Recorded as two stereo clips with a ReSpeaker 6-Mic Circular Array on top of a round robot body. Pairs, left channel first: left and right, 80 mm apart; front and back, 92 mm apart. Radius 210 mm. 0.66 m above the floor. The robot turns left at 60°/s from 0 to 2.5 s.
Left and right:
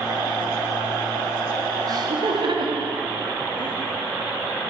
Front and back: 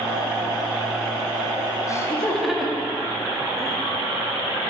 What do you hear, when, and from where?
1.9 s laughter: 55° right, 2.0 m; by 3.8 s 90° right, 2.0 m